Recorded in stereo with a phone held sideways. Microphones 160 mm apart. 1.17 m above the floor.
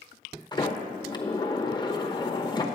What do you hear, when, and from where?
0.5 s a sliding door: 25° left (ahead or behind), 0.9 m